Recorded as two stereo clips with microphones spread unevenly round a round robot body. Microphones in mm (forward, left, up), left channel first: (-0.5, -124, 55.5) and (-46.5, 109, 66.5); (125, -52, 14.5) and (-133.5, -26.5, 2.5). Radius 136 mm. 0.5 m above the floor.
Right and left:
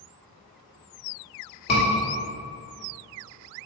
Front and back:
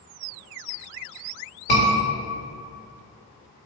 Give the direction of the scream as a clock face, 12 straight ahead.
2 o'clock.